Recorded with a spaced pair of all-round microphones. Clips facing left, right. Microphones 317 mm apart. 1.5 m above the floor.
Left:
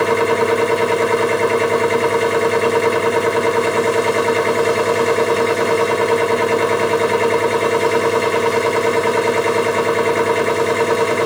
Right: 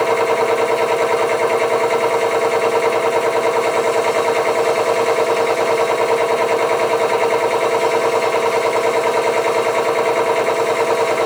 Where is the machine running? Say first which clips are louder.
Left 1 dB; 20° left (ahead or behind), 1.1 m.